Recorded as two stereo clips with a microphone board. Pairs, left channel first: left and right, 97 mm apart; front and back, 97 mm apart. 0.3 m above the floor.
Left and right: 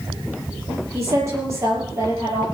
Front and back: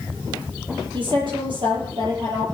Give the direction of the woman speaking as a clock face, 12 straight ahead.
5 o'clock.